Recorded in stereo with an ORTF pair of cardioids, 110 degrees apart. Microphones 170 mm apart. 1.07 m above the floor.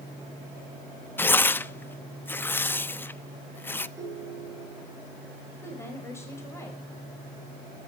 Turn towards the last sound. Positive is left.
turn(degrees=15)